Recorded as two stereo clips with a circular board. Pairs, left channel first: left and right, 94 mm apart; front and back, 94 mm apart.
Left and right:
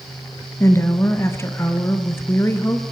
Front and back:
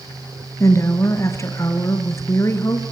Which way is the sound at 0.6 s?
40° left.